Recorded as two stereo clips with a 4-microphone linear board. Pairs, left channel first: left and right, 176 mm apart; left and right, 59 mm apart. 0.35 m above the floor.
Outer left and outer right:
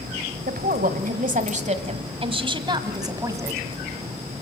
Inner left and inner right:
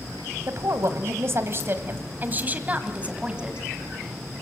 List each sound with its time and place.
0.5 s a woman speaking: 60° right (ahead or behind), 1.8 m; by 3.6 s 15° right (ahead or behind), 2 m